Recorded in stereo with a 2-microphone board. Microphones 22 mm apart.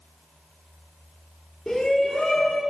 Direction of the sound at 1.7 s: 45° left (ahead or behind).